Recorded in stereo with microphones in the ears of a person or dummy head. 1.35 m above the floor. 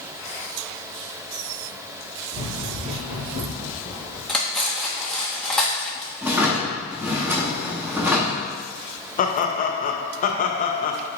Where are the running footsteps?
5° right (ahead or behind), 1.8 m; by 4.2 s 40° right (ahead or behind), 3 m.